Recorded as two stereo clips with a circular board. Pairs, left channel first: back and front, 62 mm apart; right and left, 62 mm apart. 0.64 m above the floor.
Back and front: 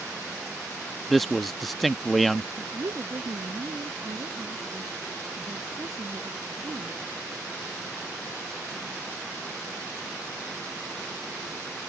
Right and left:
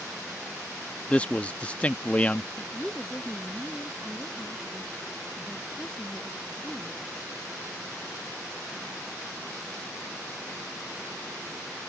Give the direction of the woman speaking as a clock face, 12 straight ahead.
12 o'clock.